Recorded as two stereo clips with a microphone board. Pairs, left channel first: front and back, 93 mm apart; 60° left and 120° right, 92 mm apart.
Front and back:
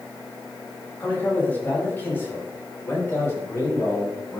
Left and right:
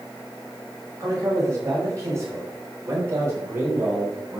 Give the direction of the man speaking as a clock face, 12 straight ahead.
2 o'clock.